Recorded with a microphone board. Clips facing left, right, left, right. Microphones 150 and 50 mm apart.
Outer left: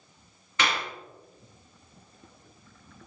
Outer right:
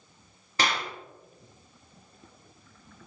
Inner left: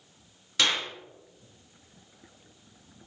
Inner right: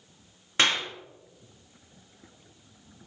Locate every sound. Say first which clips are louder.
0.6 s a clap: even, inner right 2 dB; 35° right (ahead or behind), 2 m